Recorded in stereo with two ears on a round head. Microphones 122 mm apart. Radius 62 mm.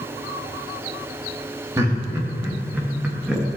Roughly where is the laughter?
Right.